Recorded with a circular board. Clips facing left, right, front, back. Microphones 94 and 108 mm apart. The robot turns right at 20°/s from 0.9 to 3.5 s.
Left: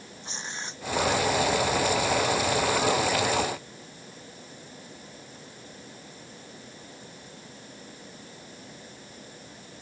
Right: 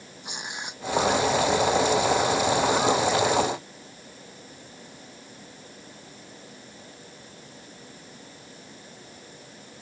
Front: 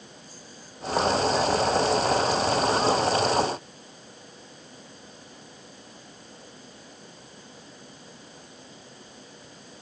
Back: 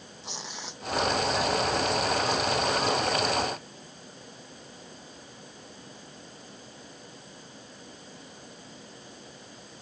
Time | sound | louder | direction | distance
0.2 | tearing paper | right 2 dB, back 6 dB | 165° right | ?